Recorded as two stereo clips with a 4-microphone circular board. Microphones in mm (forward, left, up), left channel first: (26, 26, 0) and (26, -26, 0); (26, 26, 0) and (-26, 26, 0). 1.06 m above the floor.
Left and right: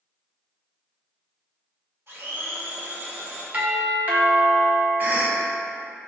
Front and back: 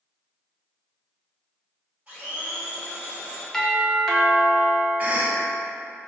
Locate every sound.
2.1 s a blender: 115° right, 1.9 m
3.5 s a doorbell: 75° right, 0.7 m
5.0 s a cough: 130° right, 0.8 m